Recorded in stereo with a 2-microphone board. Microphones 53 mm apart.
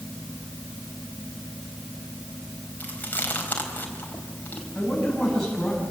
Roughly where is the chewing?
Left.